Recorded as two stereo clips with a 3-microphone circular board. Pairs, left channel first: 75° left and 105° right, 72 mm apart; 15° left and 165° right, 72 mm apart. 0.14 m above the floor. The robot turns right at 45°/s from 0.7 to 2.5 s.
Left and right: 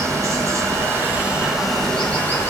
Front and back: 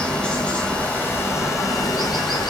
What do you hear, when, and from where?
0.0 s running water: 60° right, 1.7 m; by 2.5 s 20° left, 1.7 m